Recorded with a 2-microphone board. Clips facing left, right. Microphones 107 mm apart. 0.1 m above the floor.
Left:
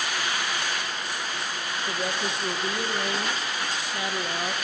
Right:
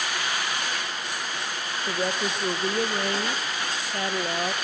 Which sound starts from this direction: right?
A woman speaking, at 1.9 s.